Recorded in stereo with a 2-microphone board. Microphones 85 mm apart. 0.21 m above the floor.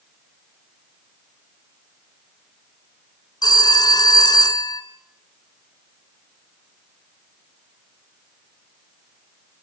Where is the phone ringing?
55° left (ahead or behind), 1.2 m.